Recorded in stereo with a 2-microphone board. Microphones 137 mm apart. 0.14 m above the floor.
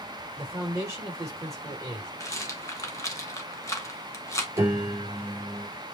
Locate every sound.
0.4 s a man speaking: 20° right (ahead or behind), 3.5 m
2.2 s a rattle: 20° left (ahead or behind), 1.1 m
4.6 s a piano: 20° right (ahead or behind), 3.5 m